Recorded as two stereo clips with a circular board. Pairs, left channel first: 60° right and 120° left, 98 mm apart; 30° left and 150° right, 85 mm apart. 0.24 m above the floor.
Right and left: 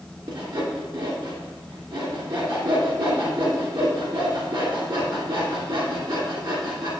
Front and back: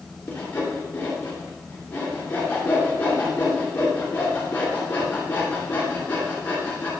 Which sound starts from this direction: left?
Sawing, at 0.3 s.